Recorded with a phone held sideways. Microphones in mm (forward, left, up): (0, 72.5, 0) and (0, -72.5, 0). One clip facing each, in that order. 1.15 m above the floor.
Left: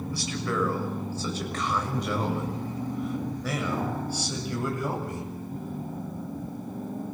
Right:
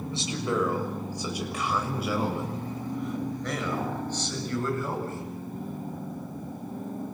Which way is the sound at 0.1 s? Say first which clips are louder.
Right 2 dB; 20° right (ahead or behind).